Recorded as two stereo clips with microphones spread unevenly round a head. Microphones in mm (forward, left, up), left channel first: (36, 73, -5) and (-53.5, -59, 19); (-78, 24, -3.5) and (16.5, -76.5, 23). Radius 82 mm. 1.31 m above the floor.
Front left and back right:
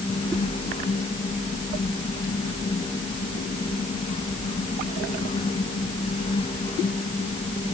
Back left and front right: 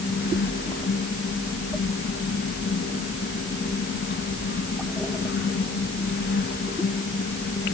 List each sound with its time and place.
Only background noise.